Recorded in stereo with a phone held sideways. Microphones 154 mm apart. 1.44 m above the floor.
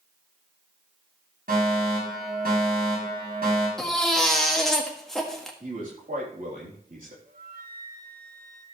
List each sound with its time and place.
1.5 s a fire alarm: 80° right, 7 m
3.8 s a baby crying: 5° left (ahead or behind), 1.5 m
5.6 s a man speaking: 65° right (ahead or behind), 3.5 m
7.2 s a flute: 65° right (ahead or behind), 2 m